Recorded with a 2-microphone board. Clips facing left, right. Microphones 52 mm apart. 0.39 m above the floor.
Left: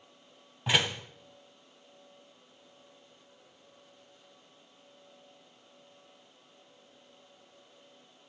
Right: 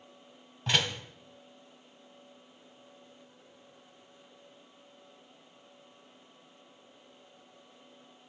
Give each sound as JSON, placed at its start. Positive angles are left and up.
{"t": 0.7, "sound": "a door slam", "side_deg": 5, "distance_m": 2.0}